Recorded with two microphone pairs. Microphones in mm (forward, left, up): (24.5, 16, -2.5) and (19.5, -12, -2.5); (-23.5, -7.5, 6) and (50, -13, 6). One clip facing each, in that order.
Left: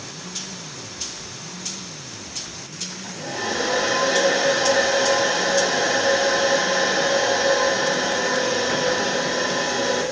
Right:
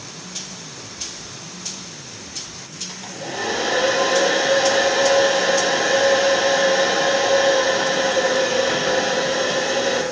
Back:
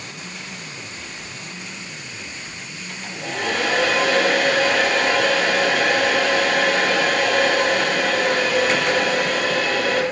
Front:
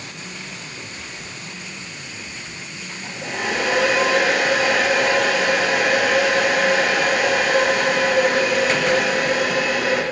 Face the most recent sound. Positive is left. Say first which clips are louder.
# right 2 dB, even
turn(degrees=-85)